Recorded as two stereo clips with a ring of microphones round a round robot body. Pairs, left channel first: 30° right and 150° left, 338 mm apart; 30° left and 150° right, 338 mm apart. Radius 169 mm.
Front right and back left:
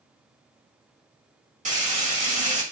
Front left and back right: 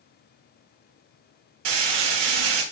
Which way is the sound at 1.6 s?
140° right.